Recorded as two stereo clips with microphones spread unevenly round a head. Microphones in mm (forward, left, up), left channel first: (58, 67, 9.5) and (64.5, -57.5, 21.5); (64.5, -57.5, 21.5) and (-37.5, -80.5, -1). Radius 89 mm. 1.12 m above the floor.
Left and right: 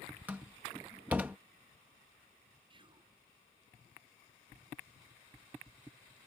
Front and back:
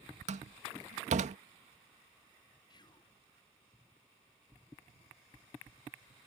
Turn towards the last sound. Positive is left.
turn(degrees=-40)